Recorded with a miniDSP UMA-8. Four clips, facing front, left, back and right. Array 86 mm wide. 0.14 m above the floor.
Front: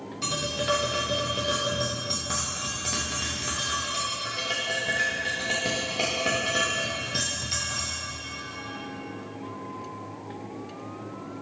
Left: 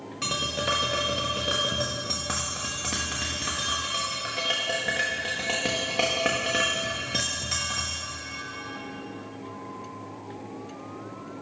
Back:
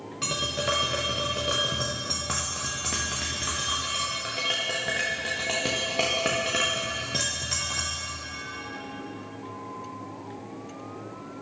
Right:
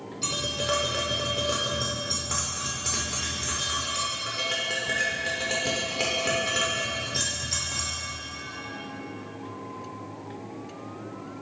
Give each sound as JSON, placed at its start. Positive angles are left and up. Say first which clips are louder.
{"t": 0.2, "sound": "tapping", "louder": "left 2 dB, front 1 dB", "azimuth_deg": 130, "distance_m": 4.0}